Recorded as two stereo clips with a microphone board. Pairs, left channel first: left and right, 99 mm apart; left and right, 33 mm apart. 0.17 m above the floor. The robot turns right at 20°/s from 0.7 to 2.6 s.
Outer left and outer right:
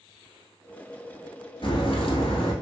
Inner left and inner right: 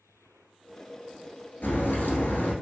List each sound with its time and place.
1.6 s a crack: 60° left (ahead or behind), 1.2 m; by 2.5 s 70° left (ahead or behind), 1.2 m